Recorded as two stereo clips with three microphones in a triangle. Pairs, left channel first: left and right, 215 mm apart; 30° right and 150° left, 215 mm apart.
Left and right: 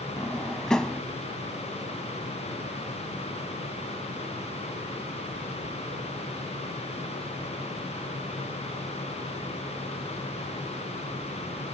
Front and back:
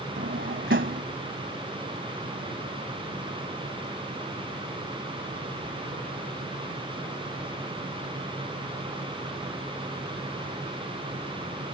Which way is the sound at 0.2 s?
175° left.